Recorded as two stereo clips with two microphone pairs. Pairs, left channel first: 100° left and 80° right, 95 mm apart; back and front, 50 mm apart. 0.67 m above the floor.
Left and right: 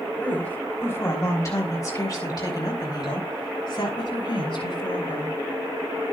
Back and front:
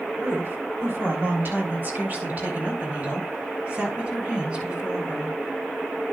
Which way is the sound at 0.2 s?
25° left.